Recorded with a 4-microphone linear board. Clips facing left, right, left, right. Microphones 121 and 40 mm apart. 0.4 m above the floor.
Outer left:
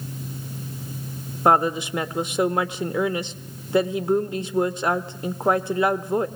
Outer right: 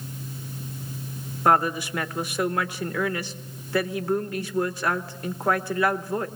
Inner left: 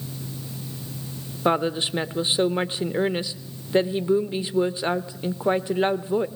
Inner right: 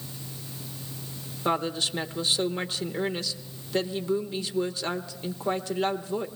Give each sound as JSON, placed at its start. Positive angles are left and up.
{"t": 1.4, "sound": "a woman speaking", "side_deg": 20, "distance_m": 0.8}